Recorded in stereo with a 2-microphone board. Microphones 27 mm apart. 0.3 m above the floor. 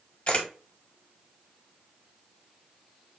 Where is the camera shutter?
45° left (ahead or behind), 1.2 m.